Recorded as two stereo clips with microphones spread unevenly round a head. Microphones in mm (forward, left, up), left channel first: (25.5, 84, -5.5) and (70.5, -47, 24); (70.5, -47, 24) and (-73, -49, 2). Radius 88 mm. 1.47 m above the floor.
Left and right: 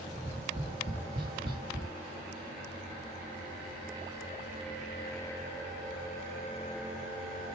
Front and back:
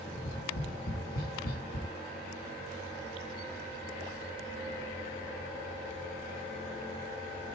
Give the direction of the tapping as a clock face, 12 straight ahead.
1 o'clock.